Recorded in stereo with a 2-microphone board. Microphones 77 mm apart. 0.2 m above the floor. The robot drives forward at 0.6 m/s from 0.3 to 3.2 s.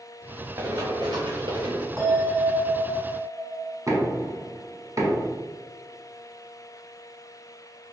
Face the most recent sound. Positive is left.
turn(degrees=-45)  # may be behind; listen again after turning